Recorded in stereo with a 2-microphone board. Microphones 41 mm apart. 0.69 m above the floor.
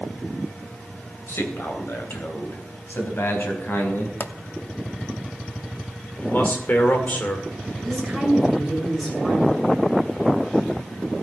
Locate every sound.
1.3 s a man speaking: 65° left (ahead or behind), 2.5 m; by 4.1 s 60° left (ahead or behind), 4 m
4.2 s a pop: 60° left (ahead or behind), 0.7 m
6.2 s a man speaking: 45° left (ahead or behind), 2.5 m
7.8 s a woman speaking: 5° left (ahead or behind), 6.5 m